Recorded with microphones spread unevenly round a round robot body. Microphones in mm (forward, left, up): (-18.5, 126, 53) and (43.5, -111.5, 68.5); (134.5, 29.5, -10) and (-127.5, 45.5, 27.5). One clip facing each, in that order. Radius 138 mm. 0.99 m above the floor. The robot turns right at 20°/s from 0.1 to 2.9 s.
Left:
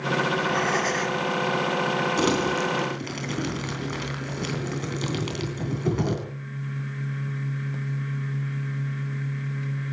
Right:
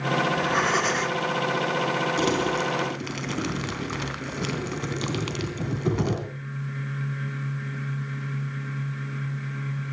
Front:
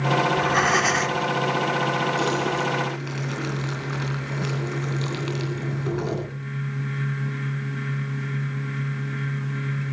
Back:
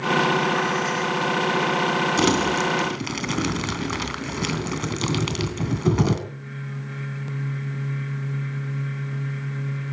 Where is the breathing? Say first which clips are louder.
Left 1 dB, even; 10° right, 2 m; by 1.2 s 10° left, 2 m.